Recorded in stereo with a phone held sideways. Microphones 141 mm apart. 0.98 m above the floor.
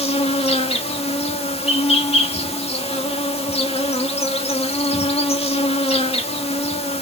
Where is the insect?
45° left (ahead or behind), 1.6 m.